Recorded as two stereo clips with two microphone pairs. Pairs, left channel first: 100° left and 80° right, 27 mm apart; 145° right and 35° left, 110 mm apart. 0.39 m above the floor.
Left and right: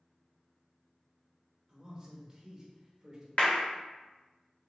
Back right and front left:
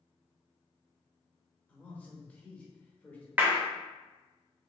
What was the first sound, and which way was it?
A man speaking, 85° right.